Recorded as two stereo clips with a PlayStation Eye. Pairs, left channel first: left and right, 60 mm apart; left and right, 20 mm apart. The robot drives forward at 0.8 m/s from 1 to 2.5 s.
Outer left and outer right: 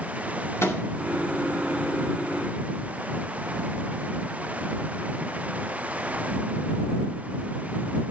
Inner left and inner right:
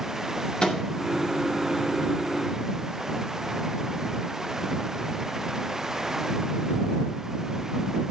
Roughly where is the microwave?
Left.